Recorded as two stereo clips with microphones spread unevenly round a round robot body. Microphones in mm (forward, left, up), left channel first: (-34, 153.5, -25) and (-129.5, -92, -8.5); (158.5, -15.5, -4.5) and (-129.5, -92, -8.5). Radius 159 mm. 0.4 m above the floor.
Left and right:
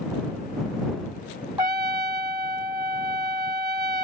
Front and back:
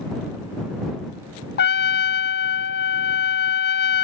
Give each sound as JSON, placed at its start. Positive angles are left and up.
{"t": 1.6, "sound": "a trumpet", "azimuth_deg": -30}